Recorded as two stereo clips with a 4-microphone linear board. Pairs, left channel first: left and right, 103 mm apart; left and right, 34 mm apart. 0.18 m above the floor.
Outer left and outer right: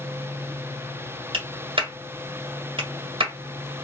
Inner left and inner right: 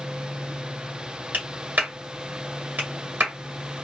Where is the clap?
60° right (ahead or behind), 1.6 m.